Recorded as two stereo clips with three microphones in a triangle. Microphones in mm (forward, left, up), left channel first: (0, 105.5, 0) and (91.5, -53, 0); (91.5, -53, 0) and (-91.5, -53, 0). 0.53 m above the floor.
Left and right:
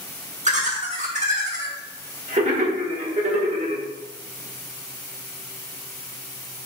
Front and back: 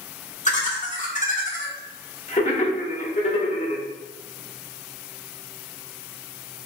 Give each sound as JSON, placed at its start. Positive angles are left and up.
{"t": 0.5, "sound": "laughter", "azimuth_deg": -30, "distance_m": 1.2}